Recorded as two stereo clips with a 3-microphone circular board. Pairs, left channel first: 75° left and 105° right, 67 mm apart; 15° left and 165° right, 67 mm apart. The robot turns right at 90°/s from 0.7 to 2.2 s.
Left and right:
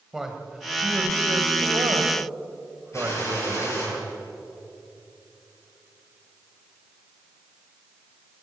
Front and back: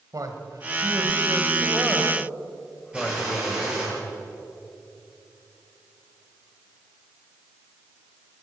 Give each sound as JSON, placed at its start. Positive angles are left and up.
{"t": 0.1, "sound": "a man speaking", "azimuth_deg": 175, "distance_m": 3.0}
{"t": 2.9, "sound": "a gunshot", "azimuth_deg": 120, "distance_m": 10.0}